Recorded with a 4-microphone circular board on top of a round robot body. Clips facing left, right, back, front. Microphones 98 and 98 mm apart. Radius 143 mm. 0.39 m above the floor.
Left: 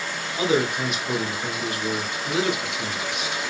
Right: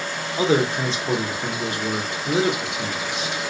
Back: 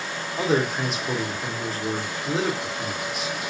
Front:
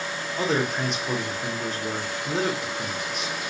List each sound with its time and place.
0.4 s a man speaking: 95° right, 0.9 m